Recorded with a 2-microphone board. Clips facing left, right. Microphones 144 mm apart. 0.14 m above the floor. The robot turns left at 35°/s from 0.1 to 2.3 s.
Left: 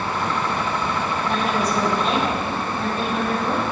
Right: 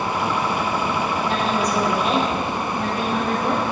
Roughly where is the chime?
No chime in this recording.